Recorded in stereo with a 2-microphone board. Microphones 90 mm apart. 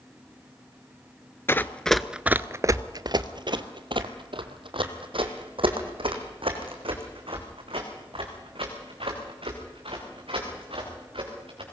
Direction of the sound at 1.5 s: 25° left (ahead or behind).